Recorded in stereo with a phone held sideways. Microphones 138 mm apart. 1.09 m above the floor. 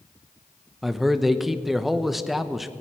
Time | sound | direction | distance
0.8 | a man speaking | centre (ahead or behind) | 0.7 m